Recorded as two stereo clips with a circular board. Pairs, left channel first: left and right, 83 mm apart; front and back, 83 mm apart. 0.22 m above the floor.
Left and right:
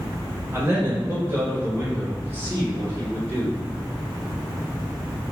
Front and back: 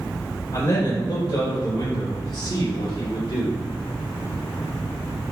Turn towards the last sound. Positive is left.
turn(degrees=-25)